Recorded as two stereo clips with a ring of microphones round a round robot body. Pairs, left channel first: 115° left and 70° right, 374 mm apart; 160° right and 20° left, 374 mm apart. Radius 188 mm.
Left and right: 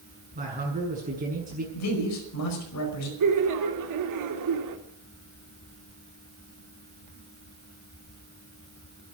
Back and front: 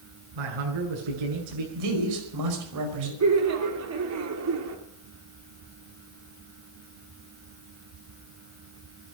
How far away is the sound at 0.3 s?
About 7.5 m.